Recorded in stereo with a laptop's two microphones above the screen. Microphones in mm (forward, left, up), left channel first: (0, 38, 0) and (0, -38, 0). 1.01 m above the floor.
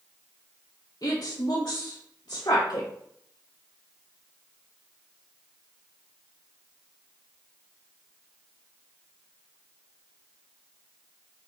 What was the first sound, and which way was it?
A woman speaking, 55° left (ahead or behind).